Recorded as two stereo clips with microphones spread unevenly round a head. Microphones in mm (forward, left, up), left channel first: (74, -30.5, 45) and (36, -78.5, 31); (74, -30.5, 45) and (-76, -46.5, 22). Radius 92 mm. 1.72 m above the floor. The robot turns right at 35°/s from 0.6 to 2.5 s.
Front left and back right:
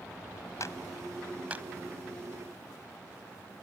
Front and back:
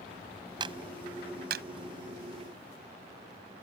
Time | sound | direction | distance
0.6 | a clap | 120° left | ?